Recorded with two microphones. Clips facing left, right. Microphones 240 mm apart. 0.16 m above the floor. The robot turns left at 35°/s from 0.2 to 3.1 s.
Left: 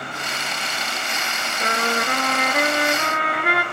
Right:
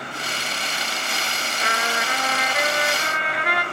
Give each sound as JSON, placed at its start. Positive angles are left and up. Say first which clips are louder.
{"t": 1.6, "sound": "a trumpet", "louder": "left 5 dB", "azimuth_deg": 135, "distance_m": 1.2}